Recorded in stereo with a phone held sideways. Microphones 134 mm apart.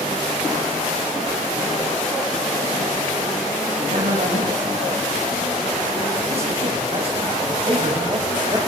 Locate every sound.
3.8 s a man speaking: 55° right (ahead or behind), 6.5 m; by 8.6 s 30° right (ahead or behind), 4 m